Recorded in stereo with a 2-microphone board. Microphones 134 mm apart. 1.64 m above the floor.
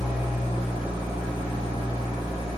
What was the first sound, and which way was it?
An engine running, 40° right (ahead or behind).